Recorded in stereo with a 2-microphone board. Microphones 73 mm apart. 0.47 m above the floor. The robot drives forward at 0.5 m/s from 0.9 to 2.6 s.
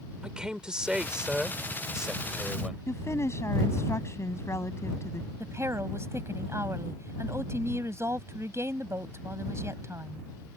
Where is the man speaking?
10° right (ahead or behind).